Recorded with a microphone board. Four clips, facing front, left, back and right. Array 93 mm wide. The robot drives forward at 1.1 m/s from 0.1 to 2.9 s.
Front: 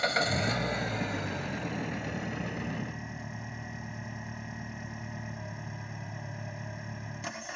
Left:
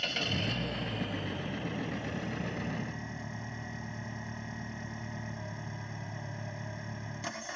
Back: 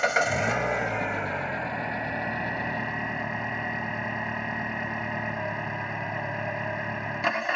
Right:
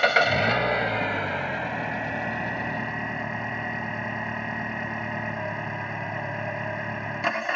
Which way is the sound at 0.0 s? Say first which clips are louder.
Right 15 dB, back 5 dB; 110° right.